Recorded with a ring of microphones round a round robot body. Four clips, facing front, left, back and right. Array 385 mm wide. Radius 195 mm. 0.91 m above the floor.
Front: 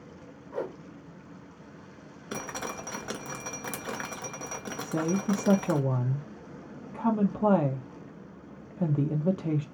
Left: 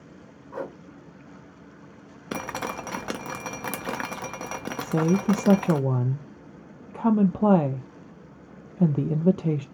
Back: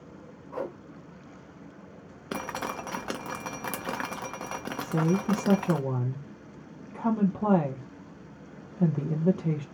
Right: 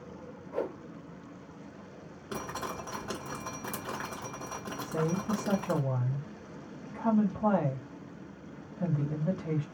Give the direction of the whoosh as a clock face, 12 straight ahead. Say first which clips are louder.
Even, even; 8 o'clock.